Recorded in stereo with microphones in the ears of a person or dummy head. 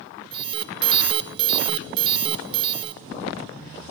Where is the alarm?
30° right (ahead or behind), 1.0 m.